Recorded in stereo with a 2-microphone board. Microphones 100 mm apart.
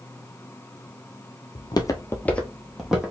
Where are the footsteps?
55° left (ahead or behind), 0.8 m; by 3.1 s 10° right (ahead or behind), 1.4 m.